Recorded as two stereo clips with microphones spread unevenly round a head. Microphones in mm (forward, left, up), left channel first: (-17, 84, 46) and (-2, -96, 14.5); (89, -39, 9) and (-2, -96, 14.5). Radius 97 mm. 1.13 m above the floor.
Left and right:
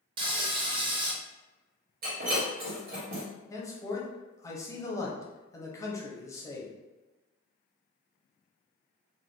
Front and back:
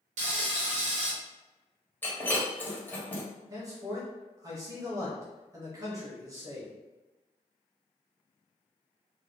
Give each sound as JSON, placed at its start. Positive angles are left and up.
{"t": 0.2, "sound": "frying", "azimuth_deg": -150, "distance_m": 0.6}
{"t": 2.0, "sound": "breaking glass", "azimuth_deg": -40, "distance_m": 1.2}
{"t": 3.5, "sound": "a man speaking", "azimuth_deg": 170, "distance_m": 0.8}